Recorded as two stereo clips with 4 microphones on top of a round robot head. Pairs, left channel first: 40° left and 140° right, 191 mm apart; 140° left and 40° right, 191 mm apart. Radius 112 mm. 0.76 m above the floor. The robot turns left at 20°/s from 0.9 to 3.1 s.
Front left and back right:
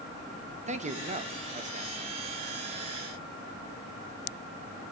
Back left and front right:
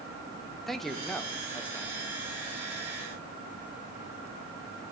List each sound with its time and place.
0.7 s a man speaking: 130° right, 1.2 m; by 1.9 s 150° right, 1.2 m